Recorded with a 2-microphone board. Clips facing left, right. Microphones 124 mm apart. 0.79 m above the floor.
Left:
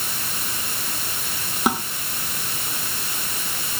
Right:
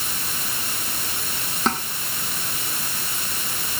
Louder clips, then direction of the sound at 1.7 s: Left 2 dB; 10° left (ahead or behind).